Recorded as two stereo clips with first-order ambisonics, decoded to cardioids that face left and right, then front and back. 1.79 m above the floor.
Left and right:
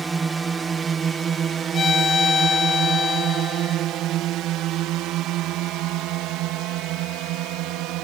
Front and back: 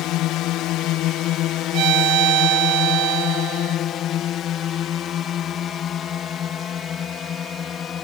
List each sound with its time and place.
0.0 s a drone: 15° right; by 8.1 s 65° right
1.7 s a violin: 155° left